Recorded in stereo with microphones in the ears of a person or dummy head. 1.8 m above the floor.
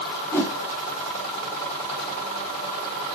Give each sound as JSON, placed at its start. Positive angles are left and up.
{"t": 0.3, "sound": "a whoosh", "side_deg": 20, "distance_m": 2.5}